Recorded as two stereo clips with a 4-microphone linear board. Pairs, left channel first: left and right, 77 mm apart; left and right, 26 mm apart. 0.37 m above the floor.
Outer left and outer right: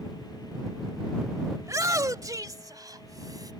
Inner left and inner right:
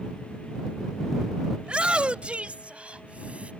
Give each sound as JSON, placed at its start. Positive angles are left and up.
{"t": 1.6, "sound": "a shout", "side_deg": -40}